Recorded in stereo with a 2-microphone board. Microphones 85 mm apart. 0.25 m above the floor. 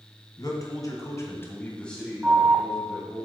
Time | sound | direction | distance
0.4 | a man speaking | 45° left (ahead or behind) | 2 m
2.2 | an alarm | 10° right (ahead or behind) | 0.7 m